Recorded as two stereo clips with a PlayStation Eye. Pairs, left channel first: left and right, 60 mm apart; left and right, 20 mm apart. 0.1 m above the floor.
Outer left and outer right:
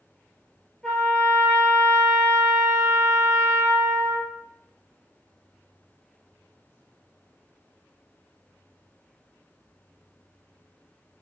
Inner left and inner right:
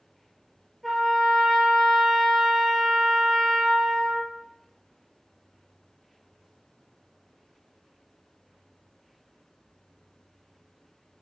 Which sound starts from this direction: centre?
A trumpet, at 0.8 s.